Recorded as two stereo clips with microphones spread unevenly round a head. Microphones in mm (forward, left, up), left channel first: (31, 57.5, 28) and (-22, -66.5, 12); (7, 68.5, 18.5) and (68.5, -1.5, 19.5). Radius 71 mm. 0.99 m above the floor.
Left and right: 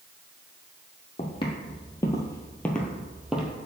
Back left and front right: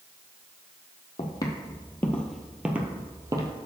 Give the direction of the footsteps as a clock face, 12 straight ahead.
9 o'clock.